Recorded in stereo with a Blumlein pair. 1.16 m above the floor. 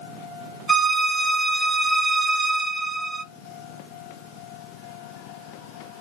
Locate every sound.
0.7 s a violin: 15° right, 0.6 m